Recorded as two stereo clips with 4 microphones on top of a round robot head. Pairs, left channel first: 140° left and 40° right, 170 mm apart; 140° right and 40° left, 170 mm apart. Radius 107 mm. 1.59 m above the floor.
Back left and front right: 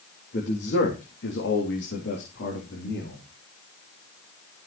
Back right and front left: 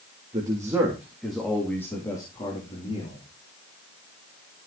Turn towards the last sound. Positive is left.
turn(degrees=170)